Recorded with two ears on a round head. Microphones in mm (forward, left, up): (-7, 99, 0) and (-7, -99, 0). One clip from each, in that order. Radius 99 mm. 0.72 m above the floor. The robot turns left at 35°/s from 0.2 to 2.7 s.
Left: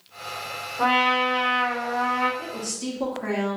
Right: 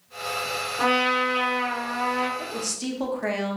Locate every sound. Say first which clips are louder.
0.8 s a trumpet: left 2 dB; 85° right, 1.1 m; by 2.3 s 135° right, 1.1 m
2.4 s a woman speaking: right 1 dB; 60° right (ahead or behind), 0.9 m; by 3.6 s 55° right (ahead or behind), 0.9 m